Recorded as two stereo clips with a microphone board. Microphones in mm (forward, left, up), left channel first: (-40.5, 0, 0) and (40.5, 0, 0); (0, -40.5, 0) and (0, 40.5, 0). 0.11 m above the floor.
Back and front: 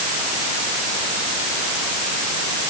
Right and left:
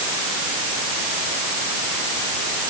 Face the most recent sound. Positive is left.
No sound to turn to.